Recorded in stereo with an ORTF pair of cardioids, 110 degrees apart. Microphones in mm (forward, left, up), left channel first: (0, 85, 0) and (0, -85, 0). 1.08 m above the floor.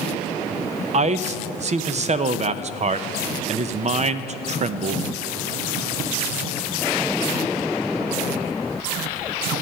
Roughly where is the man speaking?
Ahead right.